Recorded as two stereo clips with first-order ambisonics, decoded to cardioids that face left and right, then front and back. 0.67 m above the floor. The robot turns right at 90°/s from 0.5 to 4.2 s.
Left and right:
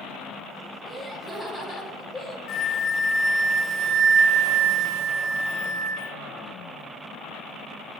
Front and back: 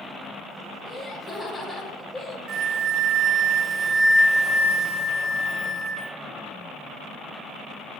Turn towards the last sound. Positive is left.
turn(degrees=-75)